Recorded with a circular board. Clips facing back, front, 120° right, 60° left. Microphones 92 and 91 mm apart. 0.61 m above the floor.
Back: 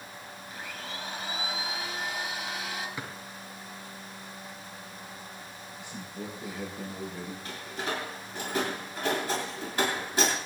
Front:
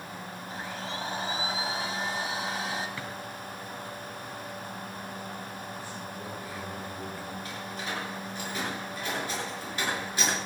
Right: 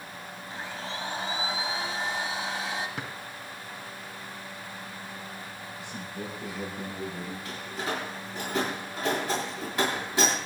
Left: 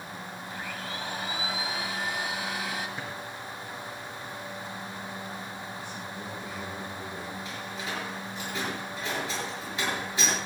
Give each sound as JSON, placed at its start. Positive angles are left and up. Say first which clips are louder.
{"t": 0.5, "sound": "a blender", "louder": "front 4 dB, right 2 dB", "azimuth_deg": -55, "distance_m": 2.0}
{"t": 3.0, "sound": "a drawer", "louder": "front 1 dB, even", "azimuth_deg": -105, "distance_m": 3.0}
{"t": 5.8, "sound": "a man speaking", "louder": "front 1 dB, even", "azimuth_deg": -110, "distance_m": 8.5}
{"t": 7.5, "sound": "a door slam", "louder": "back 4 dB, right 2 dB", "azimuth_deg": -135, "distance_m": 8.0}